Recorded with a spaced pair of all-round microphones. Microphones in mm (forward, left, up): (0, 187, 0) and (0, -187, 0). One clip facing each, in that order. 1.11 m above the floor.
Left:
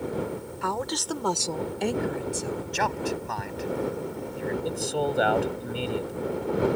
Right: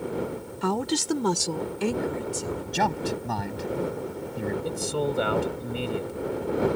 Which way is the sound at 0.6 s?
50° right (ahead or behind).